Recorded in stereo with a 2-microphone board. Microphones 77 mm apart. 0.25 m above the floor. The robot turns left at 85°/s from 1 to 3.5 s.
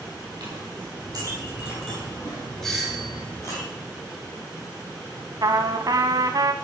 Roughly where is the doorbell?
Centre.